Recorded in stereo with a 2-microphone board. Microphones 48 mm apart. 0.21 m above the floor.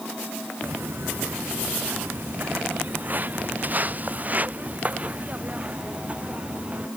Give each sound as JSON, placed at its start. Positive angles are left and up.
{"t": 0.6, "sound": "footsteps", "side_deg": -50}